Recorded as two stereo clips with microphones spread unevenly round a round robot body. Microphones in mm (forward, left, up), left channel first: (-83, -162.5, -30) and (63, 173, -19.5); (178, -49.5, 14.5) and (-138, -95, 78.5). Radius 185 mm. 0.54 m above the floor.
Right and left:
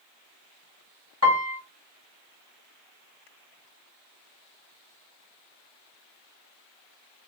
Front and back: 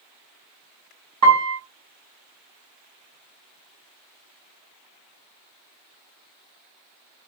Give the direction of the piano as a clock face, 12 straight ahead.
8 o'clock.